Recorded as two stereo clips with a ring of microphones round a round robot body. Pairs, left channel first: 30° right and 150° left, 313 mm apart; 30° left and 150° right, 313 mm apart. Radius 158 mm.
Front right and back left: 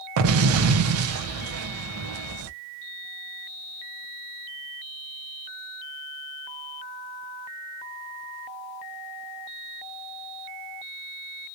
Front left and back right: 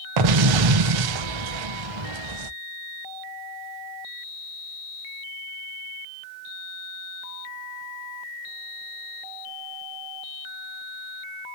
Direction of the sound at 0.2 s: 165° right.